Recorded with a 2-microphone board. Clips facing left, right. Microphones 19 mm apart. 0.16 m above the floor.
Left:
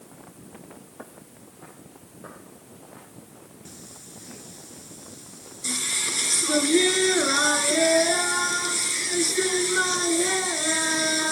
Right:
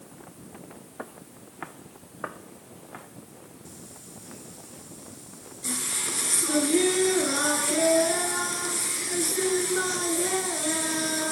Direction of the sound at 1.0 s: 25° right (ahead or behind).